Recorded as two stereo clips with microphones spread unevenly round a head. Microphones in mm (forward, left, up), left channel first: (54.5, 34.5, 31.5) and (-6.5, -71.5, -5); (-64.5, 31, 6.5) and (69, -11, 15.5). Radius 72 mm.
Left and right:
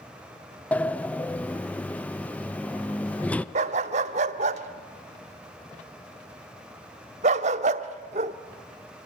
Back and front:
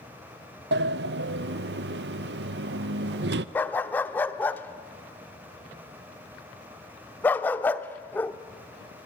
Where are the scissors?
No scissors in this recording.